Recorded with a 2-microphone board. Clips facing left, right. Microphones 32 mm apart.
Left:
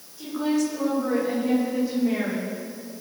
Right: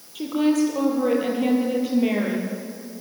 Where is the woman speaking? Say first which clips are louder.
Right 4 dB; 80° right, 8 m; by 2.5 s 70° right (ahead or behind), 7.5 m.